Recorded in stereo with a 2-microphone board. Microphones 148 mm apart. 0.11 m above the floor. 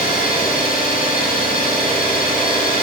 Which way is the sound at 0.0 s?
65° left (ahead or behind).